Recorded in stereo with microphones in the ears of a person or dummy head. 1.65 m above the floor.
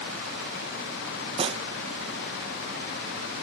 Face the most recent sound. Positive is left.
turn(degrees=-35)  # may be behind; listen again after turning